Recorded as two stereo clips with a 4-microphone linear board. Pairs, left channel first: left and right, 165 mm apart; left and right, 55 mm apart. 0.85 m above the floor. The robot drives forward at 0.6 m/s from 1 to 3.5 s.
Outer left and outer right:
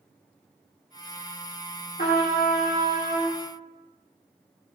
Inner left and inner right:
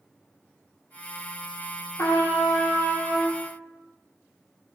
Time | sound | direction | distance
2.0 | a trumpet | 70° left (ahead or behind) | 2 m